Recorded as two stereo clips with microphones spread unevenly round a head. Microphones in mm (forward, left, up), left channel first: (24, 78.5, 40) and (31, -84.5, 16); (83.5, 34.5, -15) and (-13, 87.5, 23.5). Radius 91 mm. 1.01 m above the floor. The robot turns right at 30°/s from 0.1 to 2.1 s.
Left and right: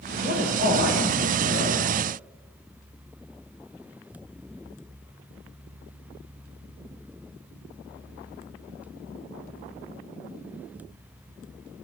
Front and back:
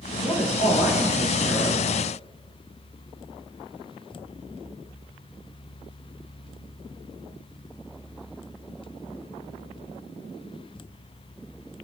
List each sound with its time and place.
0.2 s a man speaking: 95° right, 3 m; by 1.8 s 50° right, 3 m